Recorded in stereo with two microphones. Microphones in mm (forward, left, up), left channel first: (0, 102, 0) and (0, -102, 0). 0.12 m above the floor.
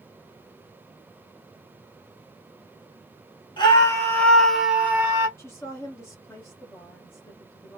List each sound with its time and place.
3.6 s a scream: 25° left (ahead or behind), 1.4 m; by 5.3 s 20° right (ahead or behind), 1.4 m
5.4 s a woman speaking: 15° left (ahead or behind), 1.8 m